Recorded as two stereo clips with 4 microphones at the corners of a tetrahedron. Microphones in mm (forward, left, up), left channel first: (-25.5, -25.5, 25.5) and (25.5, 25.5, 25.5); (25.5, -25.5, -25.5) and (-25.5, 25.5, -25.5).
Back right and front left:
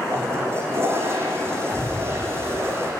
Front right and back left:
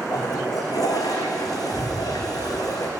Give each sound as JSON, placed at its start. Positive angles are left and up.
{"t": 0.1, "sound": "a toilet flushing", "azimuth_deg": -10, "distance_m": 4.0}